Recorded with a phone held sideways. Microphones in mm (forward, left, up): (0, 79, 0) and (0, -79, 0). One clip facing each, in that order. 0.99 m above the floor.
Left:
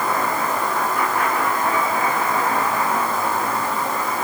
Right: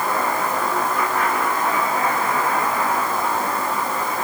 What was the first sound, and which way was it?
Only background noise.